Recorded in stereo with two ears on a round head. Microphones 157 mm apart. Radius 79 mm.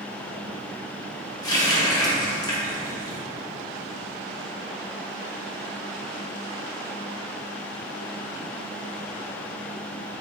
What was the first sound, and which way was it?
A running tap, 20° left (ahead or behind).